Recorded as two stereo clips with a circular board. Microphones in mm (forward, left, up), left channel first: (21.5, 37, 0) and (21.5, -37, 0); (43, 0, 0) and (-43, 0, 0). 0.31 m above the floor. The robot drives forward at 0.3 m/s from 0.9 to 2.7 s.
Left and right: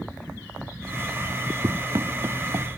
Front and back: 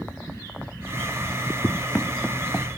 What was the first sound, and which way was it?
Running footsteps, 60° right.